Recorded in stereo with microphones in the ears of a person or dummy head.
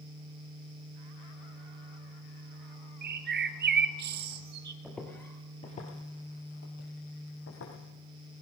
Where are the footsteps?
Centre (ahead or behind), 1.9 m; by 7.8 s 70° left (ahead or behind), 3.5 m.